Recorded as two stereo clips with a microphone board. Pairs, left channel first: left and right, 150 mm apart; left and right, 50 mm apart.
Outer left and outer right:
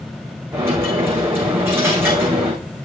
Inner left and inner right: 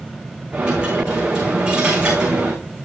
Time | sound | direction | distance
0.5 | a dropped coin | 15° right (ahead or behind) | 5 m